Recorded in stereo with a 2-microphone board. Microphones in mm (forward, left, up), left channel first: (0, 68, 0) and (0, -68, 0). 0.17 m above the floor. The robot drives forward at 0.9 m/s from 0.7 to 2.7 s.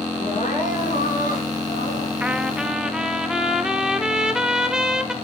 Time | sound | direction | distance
0.2 | crying | 65° left (ahead or behind) | 8.5 m
2.2 | a trumpet | 10° right (ahead or behind) | 0.7 m